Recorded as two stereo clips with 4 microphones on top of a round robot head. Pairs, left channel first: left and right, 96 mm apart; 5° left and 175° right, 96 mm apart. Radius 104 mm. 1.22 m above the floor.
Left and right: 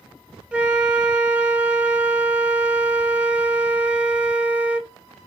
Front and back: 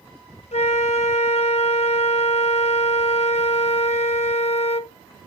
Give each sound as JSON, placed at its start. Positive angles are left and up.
{"t": 0.5, "sound": "a flute", "azimuth_deg": -10, "distance_m": 0.8}